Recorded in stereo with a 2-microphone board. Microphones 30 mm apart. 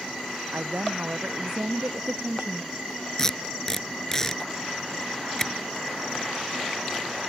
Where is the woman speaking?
80° right.